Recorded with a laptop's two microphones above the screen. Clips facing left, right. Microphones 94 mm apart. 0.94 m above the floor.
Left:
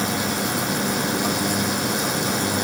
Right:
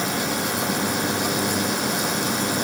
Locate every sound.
Only background noise.